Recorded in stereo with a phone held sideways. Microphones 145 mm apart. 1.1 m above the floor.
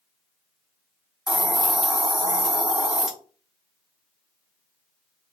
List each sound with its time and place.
1.3 s a hiss: 5° right (ahead or behind), 0.7 m